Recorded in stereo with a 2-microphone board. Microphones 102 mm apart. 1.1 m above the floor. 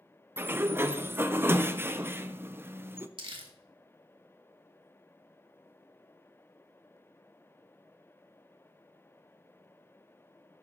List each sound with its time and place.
0.4 s a sliding door: 20° right (ahead or behind), 0.6 m
3.2 s crumpling: 55° right (ahead or behind), 1.7 m